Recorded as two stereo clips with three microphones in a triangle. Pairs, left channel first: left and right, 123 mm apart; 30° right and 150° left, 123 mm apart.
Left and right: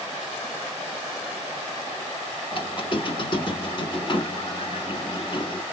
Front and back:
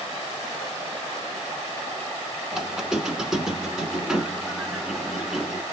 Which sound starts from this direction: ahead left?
A squeak, at 2.5 s.